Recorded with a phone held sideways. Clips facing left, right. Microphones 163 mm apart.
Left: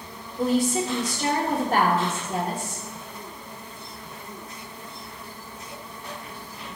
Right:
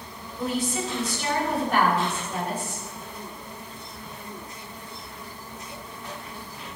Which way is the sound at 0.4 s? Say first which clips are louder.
Left 5 dB; 45° left (ahead or behind).